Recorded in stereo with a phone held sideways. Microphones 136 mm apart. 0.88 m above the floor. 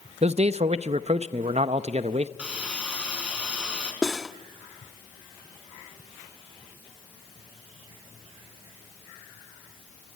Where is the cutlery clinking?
Centre (ahead or behind), 0.8 m.